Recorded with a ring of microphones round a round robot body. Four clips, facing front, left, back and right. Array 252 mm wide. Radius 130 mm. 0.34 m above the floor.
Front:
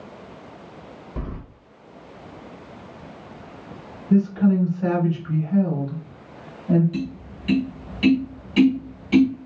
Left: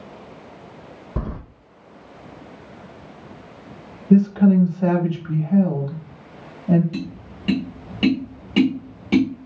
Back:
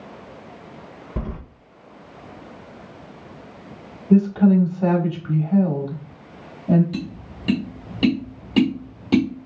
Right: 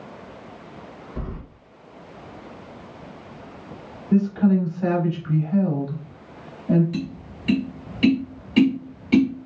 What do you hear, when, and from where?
1.2 s keys jangling: 120° left, 0.9 m
4.1 s a woman speaking: 140° left, 2.5 m
6.9 s tapping: 145° left, 2.5 m